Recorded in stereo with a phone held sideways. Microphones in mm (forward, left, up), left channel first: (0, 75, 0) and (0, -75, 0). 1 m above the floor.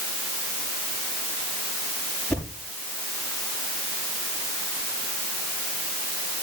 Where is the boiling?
No boiling in this recording.